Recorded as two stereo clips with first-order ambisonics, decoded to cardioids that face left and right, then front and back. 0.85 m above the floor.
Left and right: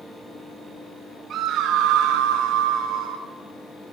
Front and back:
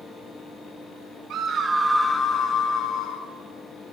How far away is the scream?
About 1.0 m.